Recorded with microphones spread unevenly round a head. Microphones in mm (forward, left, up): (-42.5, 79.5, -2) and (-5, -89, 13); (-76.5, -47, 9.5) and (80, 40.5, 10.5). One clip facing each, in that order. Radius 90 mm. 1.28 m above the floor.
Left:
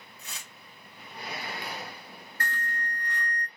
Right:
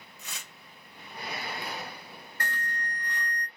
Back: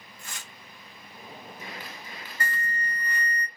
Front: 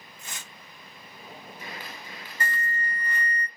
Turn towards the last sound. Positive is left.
turn(degrees=-40)